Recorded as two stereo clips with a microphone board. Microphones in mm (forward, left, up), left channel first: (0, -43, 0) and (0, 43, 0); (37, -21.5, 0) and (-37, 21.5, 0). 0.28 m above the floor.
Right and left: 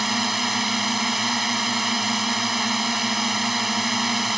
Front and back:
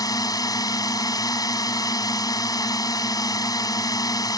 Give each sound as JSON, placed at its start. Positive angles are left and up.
{"t": 0.0, "sound": "a drone", "azimuth_deg": 0}